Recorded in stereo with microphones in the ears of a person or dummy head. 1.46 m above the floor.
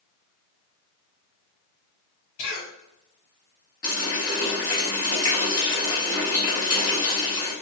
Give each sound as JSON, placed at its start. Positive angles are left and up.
{"t": 2.4, "sound": "a cough", "side_deg": 65, "distance_m": 1.0}
{"t": 3.8, "sound": "a running tap", "side_deg": 20, "distance_m": 1.1}